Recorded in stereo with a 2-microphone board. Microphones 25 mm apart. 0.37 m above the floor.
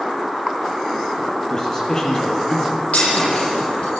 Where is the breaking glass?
75° left (ahead or behind), 8.5 m.